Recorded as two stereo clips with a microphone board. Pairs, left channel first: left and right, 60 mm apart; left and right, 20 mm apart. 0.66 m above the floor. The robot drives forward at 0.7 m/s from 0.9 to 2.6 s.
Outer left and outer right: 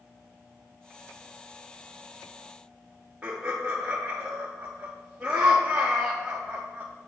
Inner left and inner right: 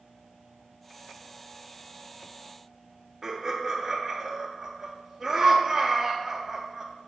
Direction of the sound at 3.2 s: 15° right (ahead or behind).